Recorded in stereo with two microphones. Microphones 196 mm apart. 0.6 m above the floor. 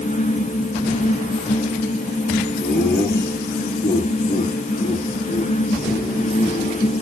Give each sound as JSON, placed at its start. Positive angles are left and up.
{"t": 2.6, "sound": "laughter", "side_deg": 55, "distance_m": 9.0}